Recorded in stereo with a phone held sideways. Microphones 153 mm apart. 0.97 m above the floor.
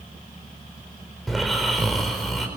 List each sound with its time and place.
1.3 s snoring: centre (ahead or behind), 4.5 m